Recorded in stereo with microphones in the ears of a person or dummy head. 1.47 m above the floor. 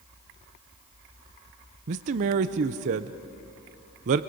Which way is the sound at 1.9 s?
40° right (ahead or behind).